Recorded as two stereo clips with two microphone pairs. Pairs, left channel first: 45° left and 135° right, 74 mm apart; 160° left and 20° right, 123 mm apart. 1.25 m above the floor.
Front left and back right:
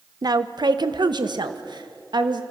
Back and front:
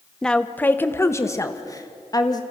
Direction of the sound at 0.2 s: 115° right.